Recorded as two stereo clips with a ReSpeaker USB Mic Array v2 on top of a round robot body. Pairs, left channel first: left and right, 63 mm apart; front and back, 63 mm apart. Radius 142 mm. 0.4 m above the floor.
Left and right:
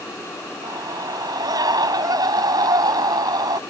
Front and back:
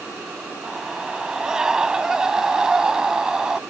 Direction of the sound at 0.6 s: 100° right.